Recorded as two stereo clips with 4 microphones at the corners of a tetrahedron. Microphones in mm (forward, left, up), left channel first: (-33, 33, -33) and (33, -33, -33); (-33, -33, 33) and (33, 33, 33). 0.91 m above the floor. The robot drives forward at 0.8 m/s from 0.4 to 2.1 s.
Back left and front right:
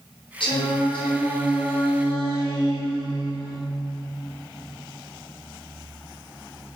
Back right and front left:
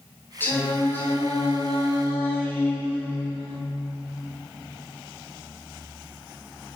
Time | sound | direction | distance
0.4 | singing | 155° left | 7.5 m